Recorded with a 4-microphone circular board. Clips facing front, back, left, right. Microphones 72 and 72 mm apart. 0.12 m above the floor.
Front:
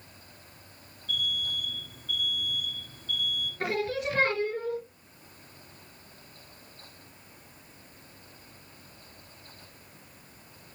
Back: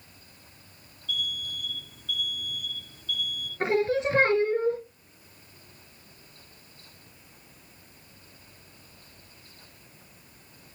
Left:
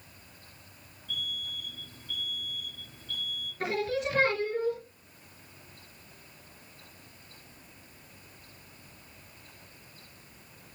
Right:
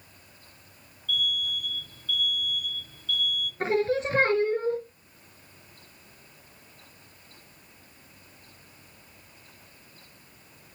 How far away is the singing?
About 1.9 m.